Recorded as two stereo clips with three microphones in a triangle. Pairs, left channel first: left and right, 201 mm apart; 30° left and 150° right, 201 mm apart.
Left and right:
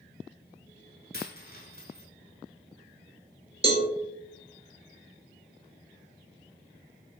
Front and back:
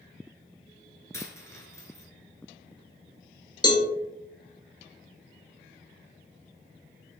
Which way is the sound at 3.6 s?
35° right.